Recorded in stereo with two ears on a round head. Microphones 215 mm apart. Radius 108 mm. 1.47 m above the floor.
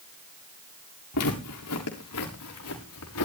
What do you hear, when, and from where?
1.1 s footsteps: 75° left (ahead or behind), 7 m; by 3.2 s 70° left (ahead or behind), 7.5 m